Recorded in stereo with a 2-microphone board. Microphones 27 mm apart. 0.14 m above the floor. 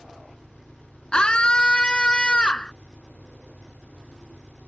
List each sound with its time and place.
0.0 s an engine running: 85° left
1.1 s a scream: 35° left (ahead or behind)